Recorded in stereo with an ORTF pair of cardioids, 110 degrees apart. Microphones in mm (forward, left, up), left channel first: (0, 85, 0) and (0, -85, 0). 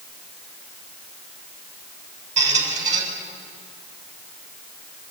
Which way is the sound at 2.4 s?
45° right.